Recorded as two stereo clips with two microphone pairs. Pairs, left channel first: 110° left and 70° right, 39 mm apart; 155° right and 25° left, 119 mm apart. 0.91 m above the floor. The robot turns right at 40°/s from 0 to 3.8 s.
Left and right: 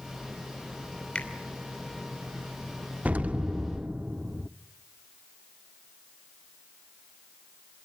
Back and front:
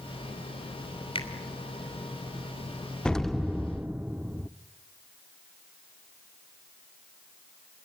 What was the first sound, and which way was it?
A finger snap, 165° left.